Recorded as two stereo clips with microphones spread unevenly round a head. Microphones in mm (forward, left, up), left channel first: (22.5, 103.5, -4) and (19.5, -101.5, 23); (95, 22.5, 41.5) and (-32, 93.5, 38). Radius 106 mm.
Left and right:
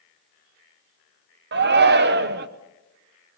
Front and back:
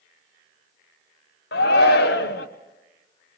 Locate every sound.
1.5 s a shout: 55° right, 1.0 m